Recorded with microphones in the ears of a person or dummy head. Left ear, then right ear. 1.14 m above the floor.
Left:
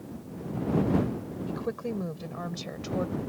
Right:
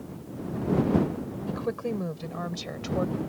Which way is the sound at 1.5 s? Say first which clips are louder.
Right 3 dB; 5° right (ahead or behind).